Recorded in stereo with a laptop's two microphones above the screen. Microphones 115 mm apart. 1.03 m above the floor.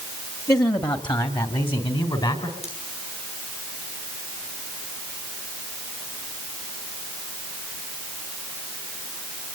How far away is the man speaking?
About 1.4 m.